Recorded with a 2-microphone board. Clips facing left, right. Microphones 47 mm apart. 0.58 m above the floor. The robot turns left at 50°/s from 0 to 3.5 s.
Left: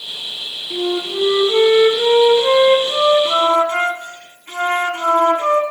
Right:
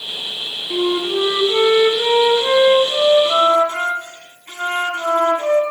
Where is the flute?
105° right, 1.3 m; by 5.6 s 115° left, 1.3 m.